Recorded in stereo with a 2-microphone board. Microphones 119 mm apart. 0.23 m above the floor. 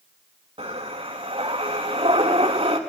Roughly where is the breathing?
Right.